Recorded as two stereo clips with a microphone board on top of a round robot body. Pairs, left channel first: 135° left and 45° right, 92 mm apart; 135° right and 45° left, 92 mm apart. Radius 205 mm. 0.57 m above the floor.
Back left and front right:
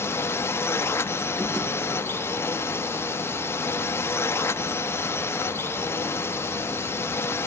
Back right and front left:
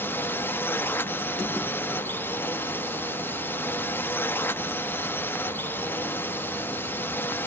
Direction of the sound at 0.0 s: 175° left.